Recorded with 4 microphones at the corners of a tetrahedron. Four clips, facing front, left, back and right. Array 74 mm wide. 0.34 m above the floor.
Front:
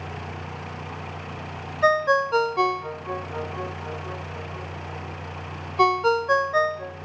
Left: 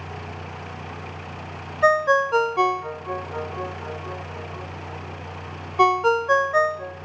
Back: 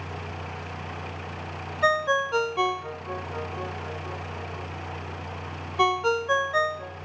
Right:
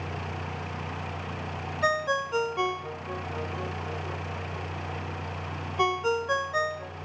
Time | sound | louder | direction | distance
1.8 | a ringtone | left 9 dB, front 3 dB | 65° left | 0.6 m